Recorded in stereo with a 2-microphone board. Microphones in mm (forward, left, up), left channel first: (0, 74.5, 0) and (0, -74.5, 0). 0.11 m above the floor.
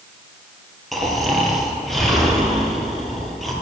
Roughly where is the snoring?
Centre.